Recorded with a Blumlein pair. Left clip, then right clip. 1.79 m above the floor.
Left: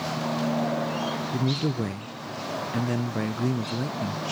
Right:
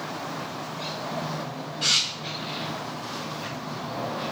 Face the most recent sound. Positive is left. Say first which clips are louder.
# left 5 dB
turn(degrees=45)